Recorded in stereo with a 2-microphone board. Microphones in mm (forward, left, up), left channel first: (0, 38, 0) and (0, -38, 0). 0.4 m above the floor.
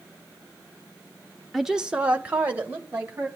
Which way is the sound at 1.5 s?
5° right (ahead or behind).